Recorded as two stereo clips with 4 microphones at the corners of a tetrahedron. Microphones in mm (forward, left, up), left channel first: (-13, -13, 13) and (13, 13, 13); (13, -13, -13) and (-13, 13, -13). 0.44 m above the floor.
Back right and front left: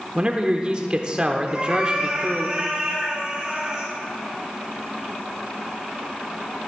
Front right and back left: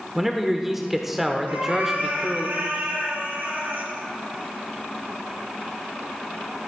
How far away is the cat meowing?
About 4 m.